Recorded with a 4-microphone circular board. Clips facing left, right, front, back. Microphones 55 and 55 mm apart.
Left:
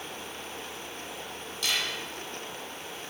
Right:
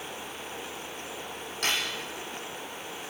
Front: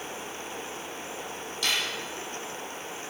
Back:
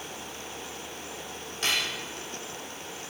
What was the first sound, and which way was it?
Cutlery clinking, 130° right.